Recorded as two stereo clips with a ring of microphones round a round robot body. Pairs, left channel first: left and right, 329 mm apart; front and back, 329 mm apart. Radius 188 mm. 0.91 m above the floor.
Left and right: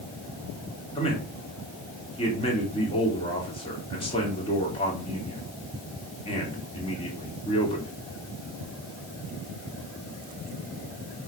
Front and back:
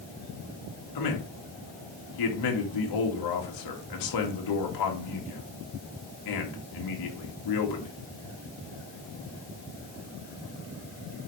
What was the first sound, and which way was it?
A man speaking, 15° left.